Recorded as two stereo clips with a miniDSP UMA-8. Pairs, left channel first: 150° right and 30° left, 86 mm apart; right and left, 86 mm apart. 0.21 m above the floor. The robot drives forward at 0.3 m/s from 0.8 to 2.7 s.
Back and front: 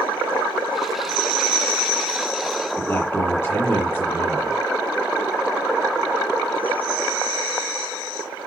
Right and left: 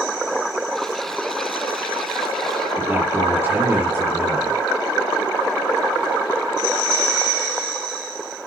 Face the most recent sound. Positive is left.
turn(degrees=150)